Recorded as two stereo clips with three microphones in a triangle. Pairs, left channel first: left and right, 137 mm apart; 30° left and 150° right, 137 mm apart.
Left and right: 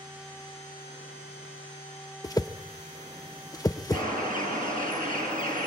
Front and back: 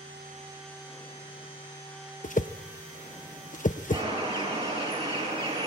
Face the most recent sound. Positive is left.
turn(degrees=-105)